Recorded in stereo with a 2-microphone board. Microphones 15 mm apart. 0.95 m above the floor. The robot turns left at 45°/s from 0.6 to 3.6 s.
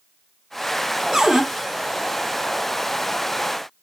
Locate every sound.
1.1 s a cupboard door: 40° right (ahead or behind), 1.2 m; by 1.4 s 50° right (ahead or behind), 1.2 m